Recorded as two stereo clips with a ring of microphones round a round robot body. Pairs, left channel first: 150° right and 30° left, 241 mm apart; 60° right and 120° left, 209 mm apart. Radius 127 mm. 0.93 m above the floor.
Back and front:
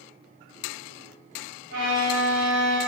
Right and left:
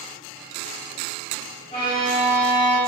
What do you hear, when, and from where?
1.7 s a violin: 5° right, 1.4 m